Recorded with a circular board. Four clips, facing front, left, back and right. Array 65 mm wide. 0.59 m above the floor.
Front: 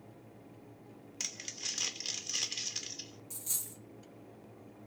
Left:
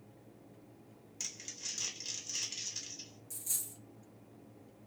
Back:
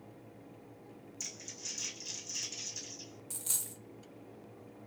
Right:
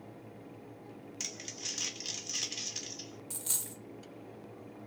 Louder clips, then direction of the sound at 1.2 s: Right 2 dB, front 3 dB; 15° right.